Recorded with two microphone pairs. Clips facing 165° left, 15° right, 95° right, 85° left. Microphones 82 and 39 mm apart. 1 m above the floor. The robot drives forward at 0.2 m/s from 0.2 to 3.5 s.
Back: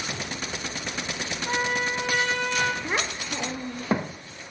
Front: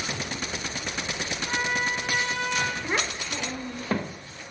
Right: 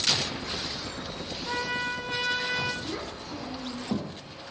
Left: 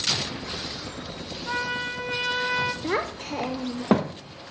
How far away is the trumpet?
About 0.8 m.